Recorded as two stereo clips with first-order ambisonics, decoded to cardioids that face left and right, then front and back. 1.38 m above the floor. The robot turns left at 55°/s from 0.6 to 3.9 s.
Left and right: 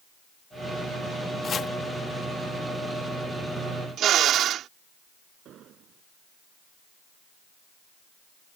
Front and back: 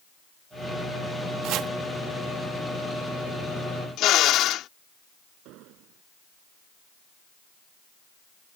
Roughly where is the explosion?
Behind right.